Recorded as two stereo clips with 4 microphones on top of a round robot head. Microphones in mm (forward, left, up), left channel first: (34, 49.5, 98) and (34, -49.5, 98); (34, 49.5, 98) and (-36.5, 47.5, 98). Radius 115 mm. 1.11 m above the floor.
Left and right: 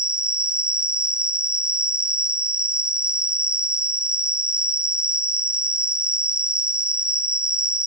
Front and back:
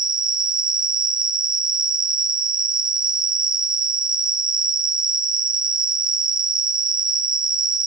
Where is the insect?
170° right, 0.9 m.